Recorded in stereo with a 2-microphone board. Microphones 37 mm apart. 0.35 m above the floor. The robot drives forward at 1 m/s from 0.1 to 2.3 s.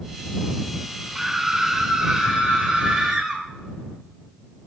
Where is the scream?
10° right (ahead or behind), 1.1 m.